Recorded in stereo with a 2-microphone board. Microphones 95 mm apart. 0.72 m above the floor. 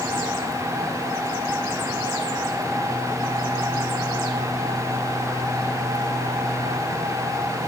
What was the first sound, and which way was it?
Only background noise.